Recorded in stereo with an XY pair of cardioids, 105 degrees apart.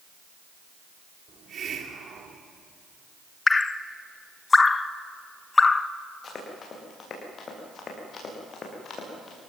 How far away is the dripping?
About 0.8 m.